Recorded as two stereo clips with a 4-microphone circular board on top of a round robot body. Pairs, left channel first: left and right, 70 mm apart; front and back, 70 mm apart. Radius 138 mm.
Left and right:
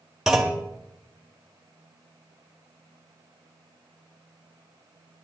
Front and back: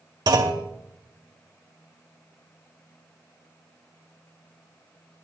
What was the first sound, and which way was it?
A clunk, 175° right.